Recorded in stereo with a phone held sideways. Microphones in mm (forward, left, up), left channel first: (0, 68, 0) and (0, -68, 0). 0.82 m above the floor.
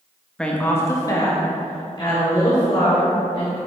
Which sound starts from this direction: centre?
A woman speaking, at 0.4 s.